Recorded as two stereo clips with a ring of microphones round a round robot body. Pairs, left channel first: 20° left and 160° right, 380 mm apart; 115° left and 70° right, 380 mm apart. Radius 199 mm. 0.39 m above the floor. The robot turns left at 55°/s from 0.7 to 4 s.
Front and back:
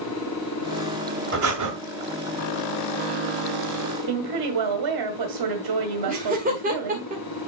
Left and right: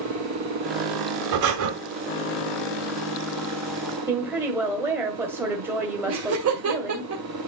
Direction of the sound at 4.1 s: 150° right.